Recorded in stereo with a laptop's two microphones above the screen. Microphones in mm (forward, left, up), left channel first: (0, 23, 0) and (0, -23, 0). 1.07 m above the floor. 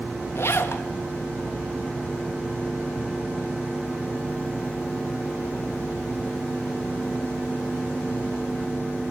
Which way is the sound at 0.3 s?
60° left (ahead or behind).